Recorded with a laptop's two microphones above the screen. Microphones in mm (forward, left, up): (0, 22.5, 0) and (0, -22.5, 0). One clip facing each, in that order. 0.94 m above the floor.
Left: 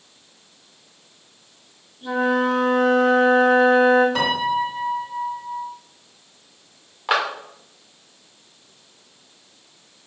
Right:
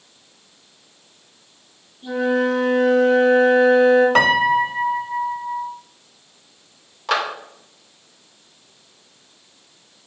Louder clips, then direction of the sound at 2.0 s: Right 1 dB; 55° left (ahead or behind).